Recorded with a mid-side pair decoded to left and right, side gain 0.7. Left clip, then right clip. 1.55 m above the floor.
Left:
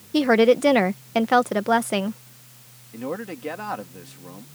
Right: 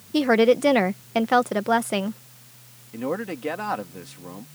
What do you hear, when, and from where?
0.1 s a woman speaking: 5° left
2.9 s a man speaking: 15° right